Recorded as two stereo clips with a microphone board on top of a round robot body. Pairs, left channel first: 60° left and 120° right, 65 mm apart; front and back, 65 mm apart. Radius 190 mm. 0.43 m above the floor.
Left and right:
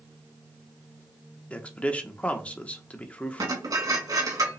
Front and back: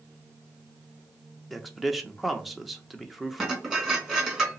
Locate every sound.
1.5 s a man speaking: 95° left, 1.0 m
3.4 s dishes clattering: 100° right, 2 m